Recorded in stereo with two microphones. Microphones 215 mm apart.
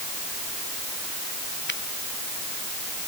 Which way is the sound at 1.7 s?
60° left (ahead or behind).